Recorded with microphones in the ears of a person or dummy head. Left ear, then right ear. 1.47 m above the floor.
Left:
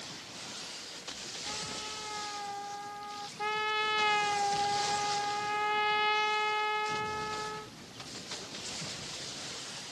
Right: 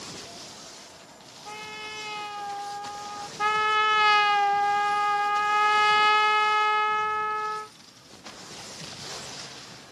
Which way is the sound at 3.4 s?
55° right (ahead or behind).